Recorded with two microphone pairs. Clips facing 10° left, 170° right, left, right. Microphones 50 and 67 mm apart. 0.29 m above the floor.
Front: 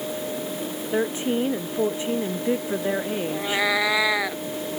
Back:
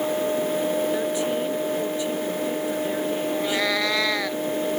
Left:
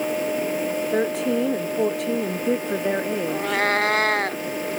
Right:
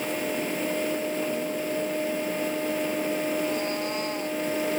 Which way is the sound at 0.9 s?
75° left.